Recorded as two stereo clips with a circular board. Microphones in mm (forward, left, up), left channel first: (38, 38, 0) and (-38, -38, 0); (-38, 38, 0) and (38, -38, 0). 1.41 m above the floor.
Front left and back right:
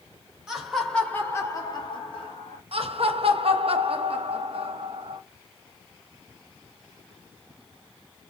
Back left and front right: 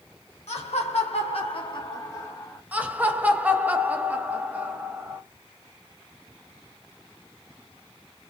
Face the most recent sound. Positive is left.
turn(degrees=-120)